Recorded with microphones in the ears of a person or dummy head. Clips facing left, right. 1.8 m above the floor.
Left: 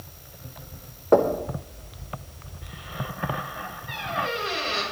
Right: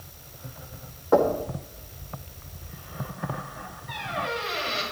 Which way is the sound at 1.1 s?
45° left (ahead or behind).